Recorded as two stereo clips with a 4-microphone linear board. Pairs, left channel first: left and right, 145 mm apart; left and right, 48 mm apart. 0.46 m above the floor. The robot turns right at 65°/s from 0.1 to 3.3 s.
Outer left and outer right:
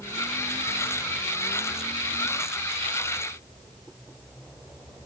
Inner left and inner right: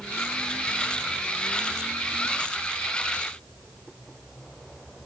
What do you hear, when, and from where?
Only background noise.